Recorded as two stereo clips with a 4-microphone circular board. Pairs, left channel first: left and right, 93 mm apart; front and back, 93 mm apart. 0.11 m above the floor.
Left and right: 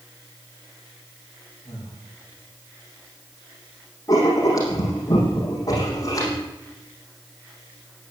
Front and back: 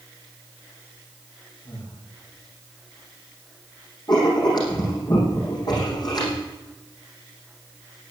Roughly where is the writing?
Ahead left.